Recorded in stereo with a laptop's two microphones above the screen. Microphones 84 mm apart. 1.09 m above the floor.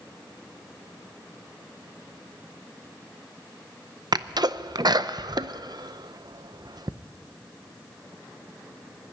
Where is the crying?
No crying in this recording.